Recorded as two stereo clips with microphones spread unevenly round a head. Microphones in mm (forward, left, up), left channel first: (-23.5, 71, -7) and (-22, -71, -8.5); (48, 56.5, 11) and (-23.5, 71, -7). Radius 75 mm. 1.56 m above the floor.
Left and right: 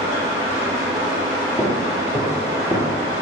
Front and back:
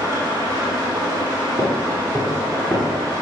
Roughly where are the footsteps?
Behind.